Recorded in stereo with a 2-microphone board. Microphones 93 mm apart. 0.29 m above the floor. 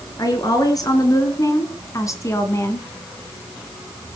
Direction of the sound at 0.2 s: 40° left (ahead or behind).